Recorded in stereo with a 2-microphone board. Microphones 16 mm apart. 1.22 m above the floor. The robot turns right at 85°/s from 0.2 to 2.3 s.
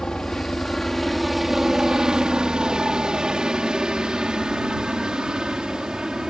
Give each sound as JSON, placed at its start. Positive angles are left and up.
{"t": 0.0, "sound": "a helicopter", "side_deg": 60}